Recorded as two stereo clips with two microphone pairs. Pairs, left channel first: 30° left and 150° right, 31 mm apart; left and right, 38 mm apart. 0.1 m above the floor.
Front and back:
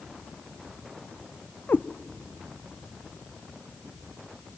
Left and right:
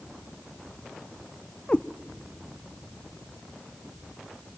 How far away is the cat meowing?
About 0.5 m.